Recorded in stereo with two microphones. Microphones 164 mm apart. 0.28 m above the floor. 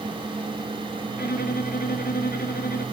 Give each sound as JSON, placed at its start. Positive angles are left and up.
{"t": 1.2, "sound": "a violin", "side_deg": 80, "distance_m": 1.4}